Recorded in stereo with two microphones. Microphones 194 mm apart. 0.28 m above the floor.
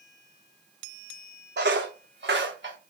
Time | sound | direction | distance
1.6 | footsteps | 65° right (ahead or behind) | 0.6 m